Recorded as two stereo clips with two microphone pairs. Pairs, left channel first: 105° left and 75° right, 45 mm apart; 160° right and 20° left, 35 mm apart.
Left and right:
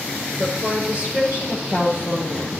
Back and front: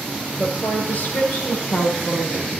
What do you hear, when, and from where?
0.4 s a woman speaking: 125° right, 7.5 m; by 2.6 s 115° right, 8.5 m